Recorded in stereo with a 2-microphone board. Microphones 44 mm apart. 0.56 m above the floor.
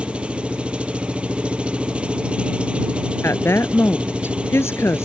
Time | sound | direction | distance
0.0 | an engine running | 25° right (ahead or behind) | ?
3.2 | a woman speaking | 85° left | ?